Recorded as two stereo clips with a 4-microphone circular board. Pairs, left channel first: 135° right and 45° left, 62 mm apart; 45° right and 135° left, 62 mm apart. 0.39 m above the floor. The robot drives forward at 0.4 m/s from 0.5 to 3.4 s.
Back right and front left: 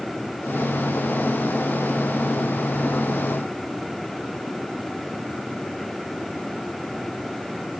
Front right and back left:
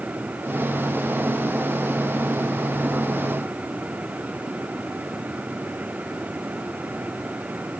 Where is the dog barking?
I don't hear a dog barking.